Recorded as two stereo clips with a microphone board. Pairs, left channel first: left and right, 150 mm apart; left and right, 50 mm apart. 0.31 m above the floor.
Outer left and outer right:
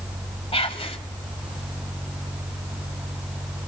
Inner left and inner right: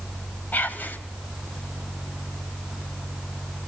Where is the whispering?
40° left (ahead or behind), 1.9 m.